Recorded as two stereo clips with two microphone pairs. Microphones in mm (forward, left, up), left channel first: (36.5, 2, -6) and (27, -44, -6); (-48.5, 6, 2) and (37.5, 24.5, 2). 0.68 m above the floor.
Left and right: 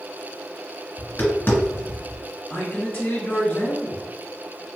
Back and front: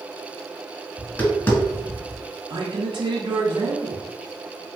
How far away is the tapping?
About 1.8 m.